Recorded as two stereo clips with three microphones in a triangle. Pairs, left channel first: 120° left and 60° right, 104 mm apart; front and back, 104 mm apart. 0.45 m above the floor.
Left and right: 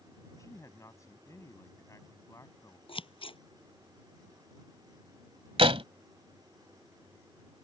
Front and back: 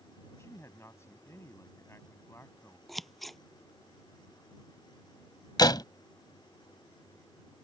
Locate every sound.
0.4 s a man speaking: 60° left
2.9 s scissors: 90° left
5.6 s a door slam: 45° right